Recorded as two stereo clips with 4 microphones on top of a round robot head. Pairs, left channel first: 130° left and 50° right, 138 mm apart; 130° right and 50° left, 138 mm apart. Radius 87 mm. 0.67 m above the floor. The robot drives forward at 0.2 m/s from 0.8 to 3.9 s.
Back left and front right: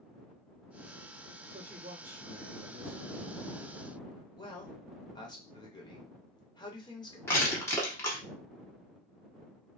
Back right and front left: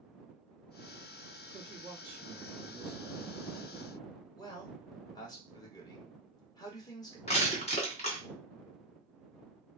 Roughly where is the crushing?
Behind.